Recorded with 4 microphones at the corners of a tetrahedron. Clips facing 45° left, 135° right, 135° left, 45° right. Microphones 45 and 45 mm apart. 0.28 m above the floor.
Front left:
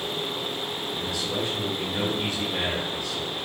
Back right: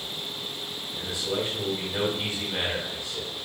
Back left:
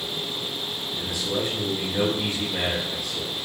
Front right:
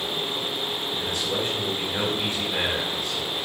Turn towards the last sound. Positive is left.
turn(degrees=-85)